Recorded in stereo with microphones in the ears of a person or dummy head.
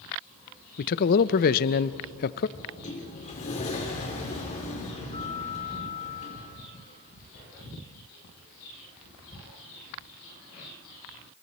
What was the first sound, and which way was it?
A man speaking, 45° left (ahead or behind).